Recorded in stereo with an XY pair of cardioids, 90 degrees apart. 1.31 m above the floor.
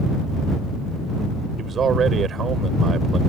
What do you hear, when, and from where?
1.6 s a man speaking: 60° right